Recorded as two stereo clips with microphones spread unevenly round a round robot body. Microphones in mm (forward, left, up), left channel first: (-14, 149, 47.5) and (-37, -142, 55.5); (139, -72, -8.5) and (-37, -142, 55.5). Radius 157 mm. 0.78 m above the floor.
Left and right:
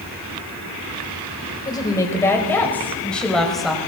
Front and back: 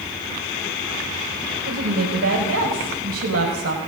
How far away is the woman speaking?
About 4.5 m.